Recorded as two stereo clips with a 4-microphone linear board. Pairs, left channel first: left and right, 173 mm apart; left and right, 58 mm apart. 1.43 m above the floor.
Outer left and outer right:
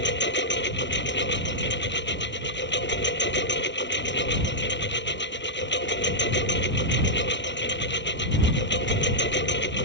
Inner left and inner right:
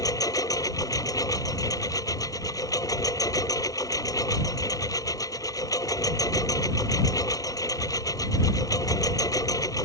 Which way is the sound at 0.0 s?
80° left.